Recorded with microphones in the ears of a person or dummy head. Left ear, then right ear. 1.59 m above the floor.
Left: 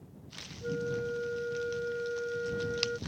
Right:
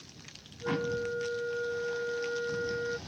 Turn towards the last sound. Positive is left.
turn(degrees=-20)  # may be behind; listen again after turning